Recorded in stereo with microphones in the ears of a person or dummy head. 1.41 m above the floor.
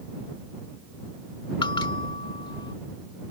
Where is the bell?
25° left (ahead or behind).